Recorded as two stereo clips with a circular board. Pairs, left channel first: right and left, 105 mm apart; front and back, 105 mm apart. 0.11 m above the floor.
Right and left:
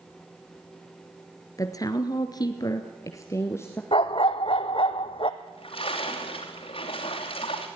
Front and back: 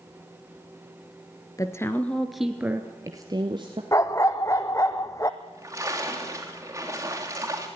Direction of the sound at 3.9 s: 60° right.